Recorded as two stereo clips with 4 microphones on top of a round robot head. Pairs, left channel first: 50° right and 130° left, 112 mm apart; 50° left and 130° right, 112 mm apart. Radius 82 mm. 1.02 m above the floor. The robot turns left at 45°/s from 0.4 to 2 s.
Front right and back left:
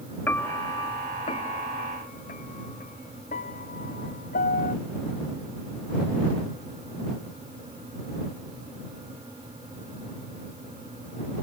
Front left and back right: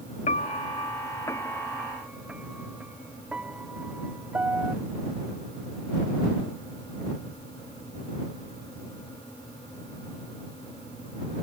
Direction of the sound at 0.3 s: 25° left.